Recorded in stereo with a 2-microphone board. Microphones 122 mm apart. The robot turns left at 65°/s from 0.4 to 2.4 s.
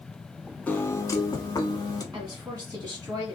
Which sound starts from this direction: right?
A woman speaking, at 2.1 s.